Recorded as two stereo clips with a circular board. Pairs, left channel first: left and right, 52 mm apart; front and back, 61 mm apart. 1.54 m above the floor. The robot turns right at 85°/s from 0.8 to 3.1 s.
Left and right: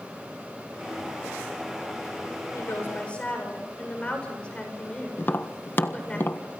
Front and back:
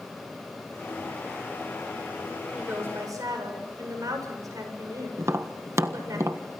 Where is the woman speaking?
110° left, 7 m; by 6.2 s 160° left, 7 m.